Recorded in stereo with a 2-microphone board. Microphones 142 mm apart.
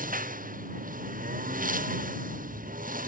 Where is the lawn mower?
75° right (ahead or behind).